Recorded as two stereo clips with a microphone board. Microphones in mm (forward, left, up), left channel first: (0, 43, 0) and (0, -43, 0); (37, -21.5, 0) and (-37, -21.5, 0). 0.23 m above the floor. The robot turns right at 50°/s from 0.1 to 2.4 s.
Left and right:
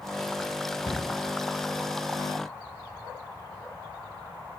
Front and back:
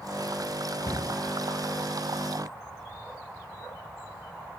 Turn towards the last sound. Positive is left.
turn(degrees=120)